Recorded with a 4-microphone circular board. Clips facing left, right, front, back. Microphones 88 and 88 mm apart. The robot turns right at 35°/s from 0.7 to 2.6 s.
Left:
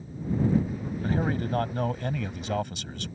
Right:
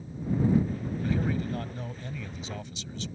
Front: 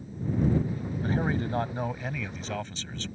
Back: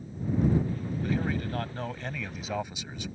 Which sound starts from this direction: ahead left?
A man speaking, at 1.0 s.